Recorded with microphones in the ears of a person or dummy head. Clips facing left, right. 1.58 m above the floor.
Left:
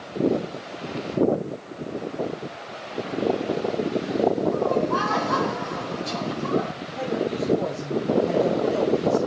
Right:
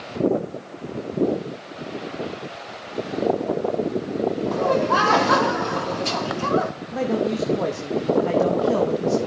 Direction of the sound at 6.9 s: 90° right.